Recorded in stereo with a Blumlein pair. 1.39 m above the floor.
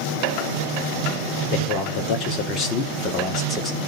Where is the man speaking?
40° left, 3.5 m; by 3.8 s 15° left, 3 m.